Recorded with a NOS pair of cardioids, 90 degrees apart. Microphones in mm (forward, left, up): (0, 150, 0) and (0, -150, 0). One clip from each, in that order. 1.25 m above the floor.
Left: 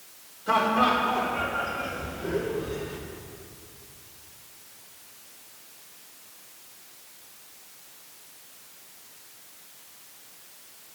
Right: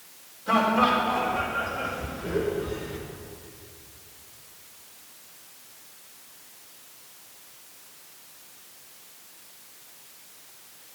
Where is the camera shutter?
I don't hear a camera shutter.